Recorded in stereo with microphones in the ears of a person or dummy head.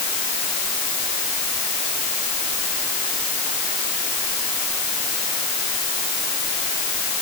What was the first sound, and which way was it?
Only background noise.